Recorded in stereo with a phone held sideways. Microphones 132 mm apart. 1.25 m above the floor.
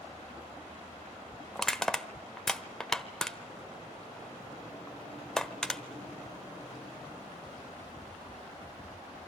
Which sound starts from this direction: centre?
Crushing, at 1.6 s.